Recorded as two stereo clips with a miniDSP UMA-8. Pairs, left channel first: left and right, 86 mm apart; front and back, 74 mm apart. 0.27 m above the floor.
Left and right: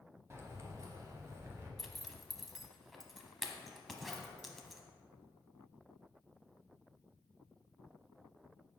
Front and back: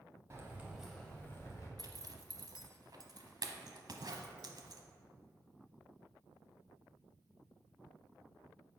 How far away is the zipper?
About 0.8 m.